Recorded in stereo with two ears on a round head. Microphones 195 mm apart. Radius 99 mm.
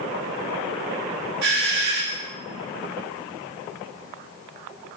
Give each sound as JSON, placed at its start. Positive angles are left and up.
{"t": 1.4, "sound": "a doorbell", "side_deg": -50, "distance_m": 3.0}